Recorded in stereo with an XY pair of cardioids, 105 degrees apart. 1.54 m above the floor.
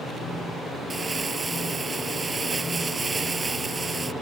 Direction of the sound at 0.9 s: 30° right.